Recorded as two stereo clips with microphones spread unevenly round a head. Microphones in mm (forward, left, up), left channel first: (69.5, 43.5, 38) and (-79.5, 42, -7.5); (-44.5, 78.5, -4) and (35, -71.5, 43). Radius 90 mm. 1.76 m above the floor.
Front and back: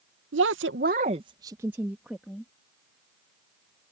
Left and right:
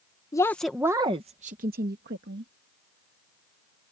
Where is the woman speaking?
165° right; by 2.5 s 80° right.